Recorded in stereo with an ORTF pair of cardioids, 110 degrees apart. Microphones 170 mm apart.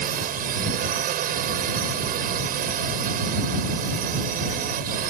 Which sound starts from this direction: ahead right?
A drone, at 0.0 s.